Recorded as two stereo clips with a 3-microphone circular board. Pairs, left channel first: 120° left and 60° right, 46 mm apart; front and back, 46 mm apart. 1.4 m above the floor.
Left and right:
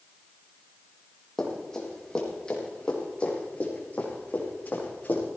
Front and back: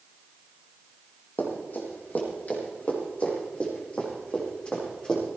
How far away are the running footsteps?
About 4.5 m.